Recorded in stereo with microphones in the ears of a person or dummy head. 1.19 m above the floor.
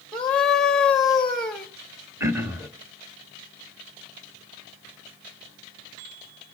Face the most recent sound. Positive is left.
turn(degrees=-15)  # may be behind; listen again after turning